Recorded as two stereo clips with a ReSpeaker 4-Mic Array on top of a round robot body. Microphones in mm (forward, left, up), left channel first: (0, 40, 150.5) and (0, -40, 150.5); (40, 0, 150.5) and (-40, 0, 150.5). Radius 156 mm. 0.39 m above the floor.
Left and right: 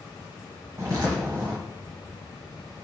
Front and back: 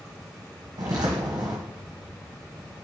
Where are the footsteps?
140° right, 1.0 m.